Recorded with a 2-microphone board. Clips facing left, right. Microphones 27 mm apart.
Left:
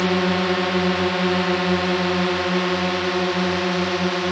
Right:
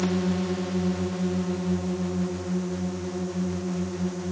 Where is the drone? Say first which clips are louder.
Left 7 dB; 55° left (ahead or behind); by 4.3 s 80° left.